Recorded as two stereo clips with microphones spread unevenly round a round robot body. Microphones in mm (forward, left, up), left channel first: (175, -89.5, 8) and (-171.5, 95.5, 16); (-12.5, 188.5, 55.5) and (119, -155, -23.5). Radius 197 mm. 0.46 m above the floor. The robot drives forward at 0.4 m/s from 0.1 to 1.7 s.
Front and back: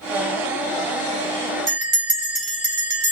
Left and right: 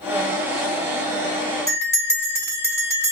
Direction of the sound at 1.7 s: 155° right.